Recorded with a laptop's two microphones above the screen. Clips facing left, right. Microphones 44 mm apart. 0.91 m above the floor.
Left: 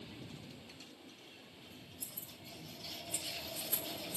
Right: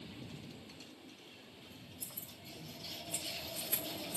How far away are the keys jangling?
About 3 m.